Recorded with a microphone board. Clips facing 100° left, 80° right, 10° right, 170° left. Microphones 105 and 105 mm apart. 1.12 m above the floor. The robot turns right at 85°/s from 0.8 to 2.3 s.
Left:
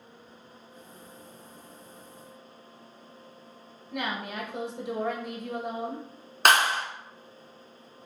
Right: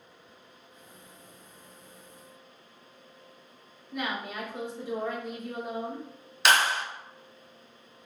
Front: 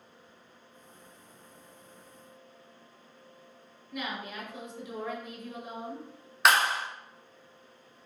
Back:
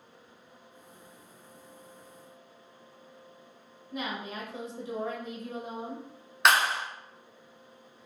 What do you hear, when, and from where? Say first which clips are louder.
3.9 s a woman speaking: left 1 dB, back 1 dB; 115° left, 0.6 m
6.5 s a clap: left 2 dB, even; 80° left, 0.6 m